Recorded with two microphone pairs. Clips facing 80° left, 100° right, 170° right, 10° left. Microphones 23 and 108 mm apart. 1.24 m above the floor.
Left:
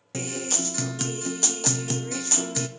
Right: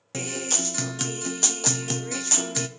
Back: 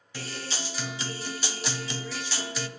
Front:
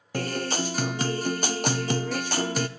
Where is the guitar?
20° right, 0.6 m.